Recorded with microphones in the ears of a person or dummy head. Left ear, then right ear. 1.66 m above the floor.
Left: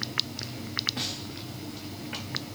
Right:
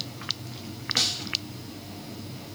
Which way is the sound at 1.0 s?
80° right.